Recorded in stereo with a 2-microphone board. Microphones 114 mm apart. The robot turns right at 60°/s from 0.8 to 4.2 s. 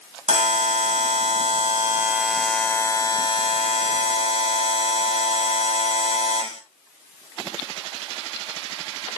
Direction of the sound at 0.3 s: 95° right.